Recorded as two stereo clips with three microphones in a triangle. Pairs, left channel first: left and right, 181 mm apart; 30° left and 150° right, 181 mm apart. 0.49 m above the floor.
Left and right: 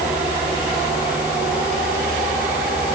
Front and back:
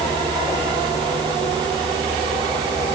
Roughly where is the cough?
I don't hear a cough.